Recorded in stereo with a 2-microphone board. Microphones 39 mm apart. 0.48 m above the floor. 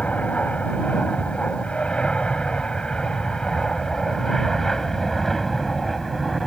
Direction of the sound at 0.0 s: 35° left (ahead or behind).